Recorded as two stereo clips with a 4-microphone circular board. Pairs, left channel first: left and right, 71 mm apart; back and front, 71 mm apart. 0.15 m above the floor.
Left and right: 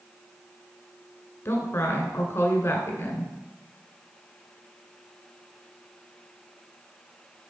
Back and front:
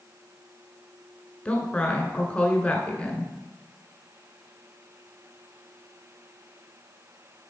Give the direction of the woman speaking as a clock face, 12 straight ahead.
8 o'clock.